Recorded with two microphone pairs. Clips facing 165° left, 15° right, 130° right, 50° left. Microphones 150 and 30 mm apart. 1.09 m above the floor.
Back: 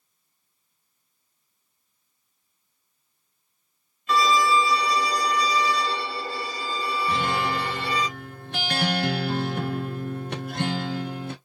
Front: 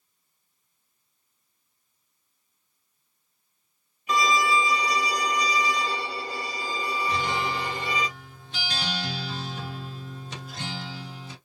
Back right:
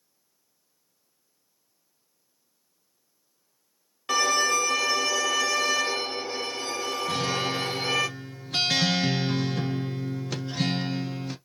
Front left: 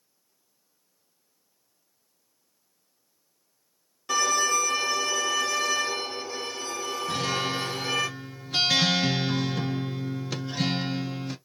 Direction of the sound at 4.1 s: 85° right.